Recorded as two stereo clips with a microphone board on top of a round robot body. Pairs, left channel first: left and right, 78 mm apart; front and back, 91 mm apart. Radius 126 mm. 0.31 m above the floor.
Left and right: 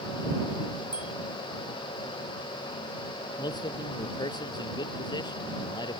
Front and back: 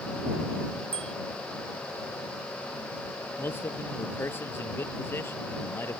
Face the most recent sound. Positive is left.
turn(degrees=65)